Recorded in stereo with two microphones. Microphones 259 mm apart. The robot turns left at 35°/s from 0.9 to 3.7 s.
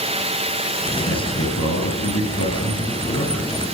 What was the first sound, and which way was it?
A man speaking, 110° left.